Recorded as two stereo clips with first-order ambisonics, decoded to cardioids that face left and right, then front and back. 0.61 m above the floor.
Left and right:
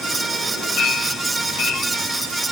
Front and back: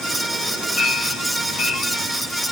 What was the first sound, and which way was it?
A clink, 65° left.